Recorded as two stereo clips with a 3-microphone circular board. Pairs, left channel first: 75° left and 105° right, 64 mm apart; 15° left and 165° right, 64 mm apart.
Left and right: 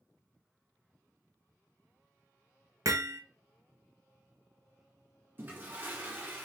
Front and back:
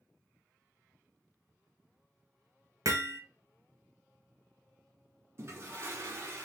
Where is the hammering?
135° right, 0.9 m.